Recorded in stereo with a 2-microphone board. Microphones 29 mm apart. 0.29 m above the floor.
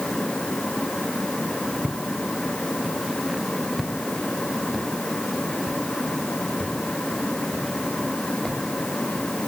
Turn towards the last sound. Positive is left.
turn(degrees=20)  # may be behind; listen again after turning